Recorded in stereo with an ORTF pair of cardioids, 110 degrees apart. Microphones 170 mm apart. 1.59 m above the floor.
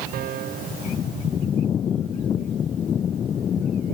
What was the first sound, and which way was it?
A piano, 65° right.